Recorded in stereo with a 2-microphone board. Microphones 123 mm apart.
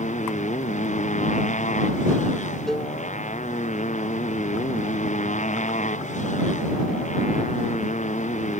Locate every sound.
0.0 s a motorcycle: 80° left
2.7 s a cowbell: 5° left (ahead or behind)